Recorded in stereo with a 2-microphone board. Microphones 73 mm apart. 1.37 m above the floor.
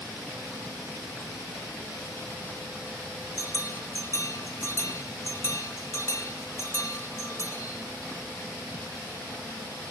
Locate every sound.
3.4 s a bell: 40° left (ahead or behind), 1.4 m